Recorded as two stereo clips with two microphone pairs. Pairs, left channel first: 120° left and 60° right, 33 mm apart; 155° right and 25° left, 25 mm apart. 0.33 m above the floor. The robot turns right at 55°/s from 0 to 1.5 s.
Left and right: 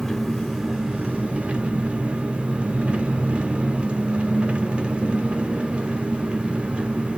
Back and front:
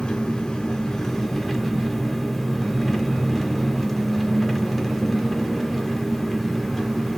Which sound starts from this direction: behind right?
An engine running, at 0.0 s.